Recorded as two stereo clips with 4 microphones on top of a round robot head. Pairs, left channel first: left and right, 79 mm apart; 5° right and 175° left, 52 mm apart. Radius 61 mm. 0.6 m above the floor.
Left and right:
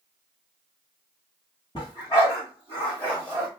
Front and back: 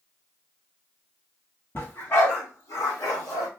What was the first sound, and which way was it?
A dog barking, 40° left.